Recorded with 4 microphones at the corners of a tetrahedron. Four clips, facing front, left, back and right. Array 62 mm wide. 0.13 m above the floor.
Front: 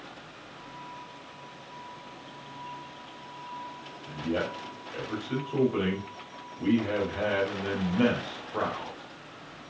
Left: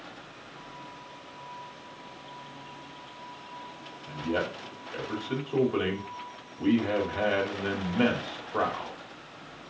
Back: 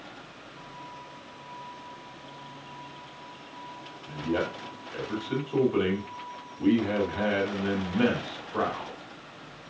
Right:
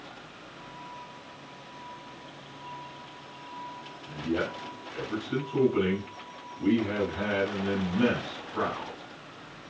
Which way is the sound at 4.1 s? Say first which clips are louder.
Even, back 1 dB; 75° left.